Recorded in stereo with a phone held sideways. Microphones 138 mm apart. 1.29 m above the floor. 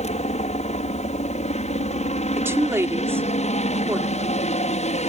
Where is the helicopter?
55° left (ahead or behind).